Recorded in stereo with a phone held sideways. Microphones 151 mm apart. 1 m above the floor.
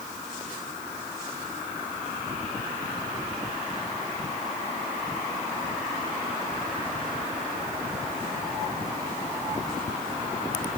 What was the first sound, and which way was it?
Only background noise.